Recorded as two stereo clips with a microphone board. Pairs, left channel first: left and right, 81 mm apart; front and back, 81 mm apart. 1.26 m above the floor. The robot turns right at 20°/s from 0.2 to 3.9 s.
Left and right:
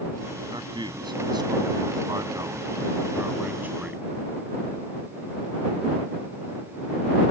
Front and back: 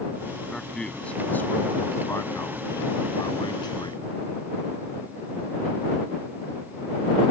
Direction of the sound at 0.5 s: 85° right.